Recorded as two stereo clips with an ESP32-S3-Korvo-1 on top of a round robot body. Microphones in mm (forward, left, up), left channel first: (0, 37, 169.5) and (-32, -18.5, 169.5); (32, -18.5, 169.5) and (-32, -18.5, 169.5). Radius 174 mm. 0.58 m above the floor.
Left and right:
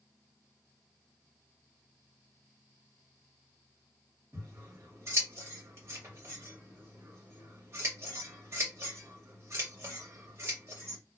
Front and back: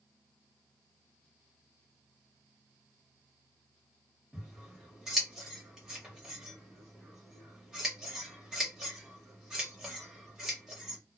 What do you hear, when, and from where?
4.3 s scissors: 100° right, 1.6 m